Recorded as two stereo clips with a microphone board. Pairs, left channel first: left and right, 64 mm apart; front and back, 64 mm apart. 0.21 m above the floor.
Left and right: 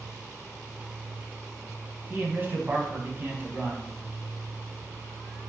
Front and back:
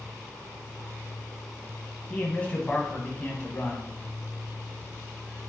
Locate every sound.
2.1 s a man speaking: 55° right, 1.3 m